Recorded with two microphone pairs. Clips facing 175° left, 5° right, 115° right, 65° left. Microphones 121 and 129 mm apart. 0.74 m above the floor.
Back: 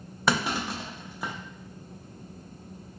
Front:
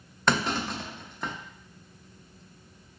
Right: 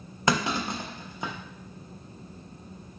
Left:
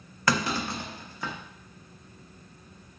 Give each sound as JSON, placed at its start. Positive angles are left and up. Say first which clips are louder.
{"t": 0.3, "sound": "a clunk", "louder": "even, right 1 dB", "azimuth_deg": -115, "distance_m": 0.6}